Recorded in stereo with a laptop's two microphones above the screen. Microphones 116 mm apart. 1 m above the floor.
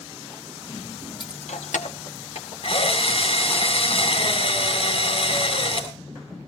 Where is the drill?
60° left (ahead or behind), 3.5 m.